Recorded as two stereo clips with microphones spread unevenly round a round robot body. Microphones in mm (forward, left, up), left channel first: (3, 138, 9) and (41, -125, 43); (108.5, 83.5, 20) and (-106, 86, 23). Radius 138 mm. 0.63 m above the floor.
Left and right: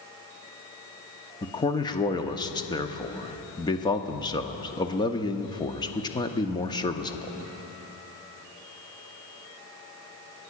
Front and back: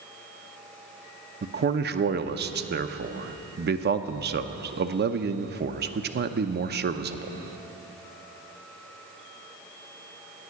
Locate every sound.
1.4 s a man speaking: 160° left, 0.8 m